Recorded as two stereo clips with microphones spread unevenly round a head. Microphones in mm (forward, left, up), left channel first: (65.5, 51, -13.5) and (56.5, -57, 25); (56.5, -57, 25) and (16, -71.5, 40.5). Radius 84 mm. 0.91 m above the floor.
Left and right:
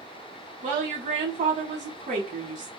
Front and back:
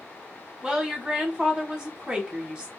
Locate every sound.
0.6 s a woman speaking: 80° right, 0.9 m